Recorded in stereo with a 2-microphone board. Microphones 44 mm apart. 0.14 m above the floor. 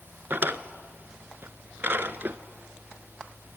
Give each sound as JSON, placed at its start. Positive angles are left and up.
{"t": 0.3, "sound": "a drawer", "side_deg": -50, "distance_m": 0.8}